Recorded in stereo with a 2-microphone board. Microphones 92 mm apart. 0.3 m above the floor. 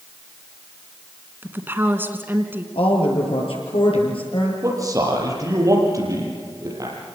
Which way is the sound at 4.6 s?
35° right (ahead or behind).